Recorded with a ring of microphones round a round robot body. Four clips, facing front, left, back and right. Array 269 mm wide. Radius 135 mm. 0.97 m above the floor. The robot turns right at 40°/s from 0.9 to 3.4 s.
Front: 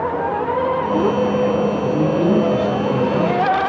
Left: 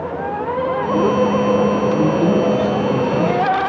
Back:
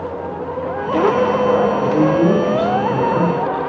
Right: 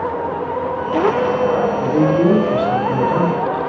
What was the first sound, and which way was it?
A man speaking, 115° right.